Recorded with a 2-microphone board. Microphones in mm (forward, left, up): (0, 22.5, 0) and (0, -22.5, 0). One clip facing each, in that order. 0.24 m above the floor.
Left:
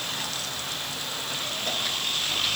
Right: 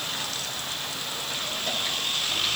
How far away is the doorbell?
I don't hear a doorbell.